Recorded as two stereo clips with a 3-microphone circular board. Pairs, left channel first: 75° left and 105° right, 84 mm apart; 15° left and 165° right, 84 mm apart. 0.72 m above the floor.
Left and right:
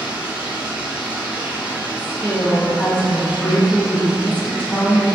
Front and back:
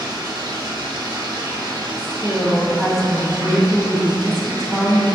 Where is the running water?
175° right, 0.7 m.